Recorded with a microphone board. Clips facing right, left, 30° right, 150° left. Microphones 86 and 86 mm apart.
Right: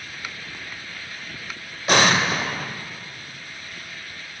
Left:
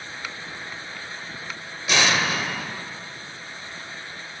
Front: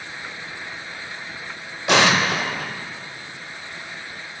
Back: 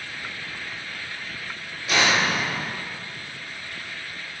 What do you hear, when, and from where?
1.9 s an explosion: 50° right, 0.6 m